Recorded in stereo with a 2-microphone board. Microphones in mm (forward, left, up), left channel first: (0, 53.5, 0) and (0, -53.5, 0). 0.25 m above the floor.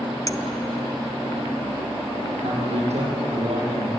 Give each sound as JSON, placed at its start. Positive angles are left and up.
{"t": 0.3, "sound": "a clink", "side_deg": 35, "distance_m": 0.7}
{"t": 2.4, "sound": "a man speaking", "side_deg": -80, "distance_m": 8.0}